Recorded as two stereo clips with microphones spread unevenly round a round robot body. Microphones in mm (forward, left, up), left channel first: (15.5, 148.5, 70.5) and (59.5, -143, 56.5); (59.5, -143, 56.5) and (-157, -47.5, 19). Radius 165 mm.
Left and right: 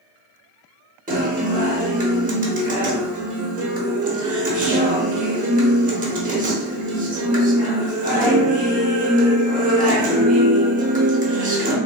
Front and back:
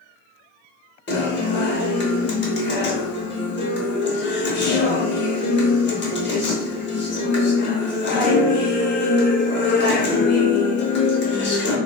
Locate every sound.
1.1 s a guitar: 45° right, 0.9 m